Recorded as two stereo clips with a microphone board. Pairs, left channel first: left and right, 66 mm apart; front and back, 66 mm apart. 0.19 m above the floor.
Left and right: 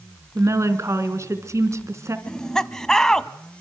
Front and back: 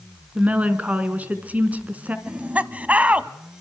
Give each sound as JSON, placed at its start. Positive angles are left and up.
{"t": 0.3, "sound": "a woman speaking", "azimuth_deg": -115, "distance_m": 2.5}
{"t": 2.3, "sound": "laughter", "azimuth_deg": 155, "distance_m": 1.1}